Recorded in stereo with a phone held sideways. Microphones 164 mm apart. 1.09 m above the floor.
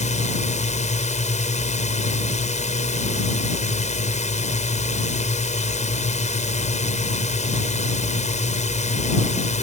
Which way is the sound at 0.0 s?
45° left (ahead or behind).